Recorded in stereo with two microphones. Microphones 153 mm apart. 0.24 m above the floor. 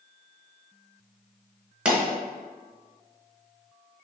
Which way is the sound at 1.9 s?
10° right (ahead or behind).